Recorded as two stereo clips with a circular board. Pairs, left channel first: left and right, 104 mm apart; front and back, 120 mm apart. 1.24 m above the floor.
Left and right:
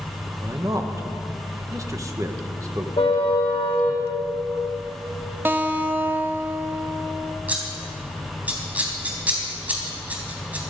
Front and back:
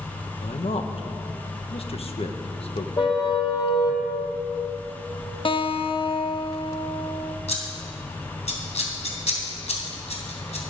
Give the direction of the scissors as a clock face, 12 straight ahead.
12 o'clock.